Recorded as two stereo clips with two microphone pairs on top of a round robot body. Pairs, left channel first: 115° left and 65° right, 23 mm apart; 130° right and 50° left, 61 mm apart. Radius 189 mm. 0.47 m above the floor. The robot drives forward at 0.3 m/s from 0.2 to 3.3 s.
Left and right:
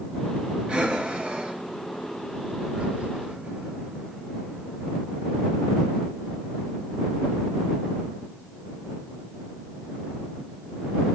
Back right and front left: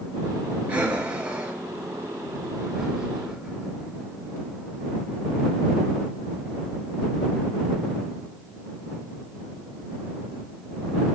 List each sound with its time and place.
0.7 s breathing: 20° right, 2 m; by 3.7 s 35° right, 1.3 m